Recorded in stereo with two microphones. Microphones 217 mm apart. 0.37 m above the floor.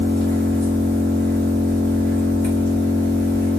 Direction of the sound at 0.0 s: 50° right (ahead or behind).